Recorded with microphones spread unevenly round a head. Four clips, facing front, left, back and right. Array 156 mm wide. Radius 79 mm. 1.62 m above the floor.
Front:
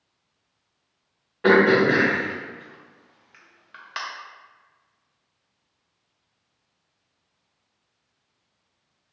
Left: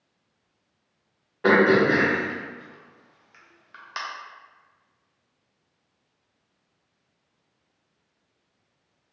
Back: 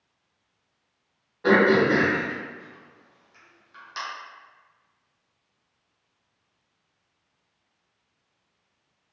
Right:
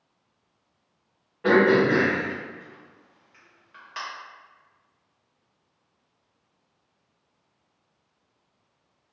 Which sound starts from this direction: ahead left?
Throat clearing, at 1.4 s.